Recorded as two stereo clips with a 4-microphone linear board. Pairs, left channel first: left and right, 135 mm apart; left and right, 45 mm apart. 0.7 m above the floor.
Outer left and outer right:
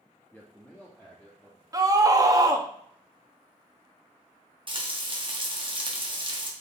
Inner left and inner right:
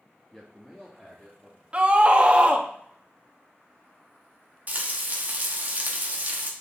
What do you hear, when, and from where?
0.3 s a man speaking: 15° left (ahead or behind), 0.7 m; by 1.6 s 5° left (ahead or behind), 1.4 m
1.7 s a scream: 25° right (ahead or behind), 0.7 m
4.7 s frying: 35° right (ahead or behind), 0.9 m